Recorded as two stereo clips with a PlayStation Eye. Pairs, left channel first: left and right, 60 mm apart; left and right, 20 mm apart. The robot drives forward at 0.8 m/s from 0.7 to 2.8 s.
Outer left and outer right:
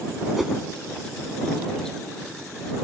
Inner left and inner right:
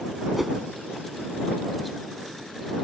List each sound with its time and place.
0.4 s a whoosh: 5° right (ahead or behind)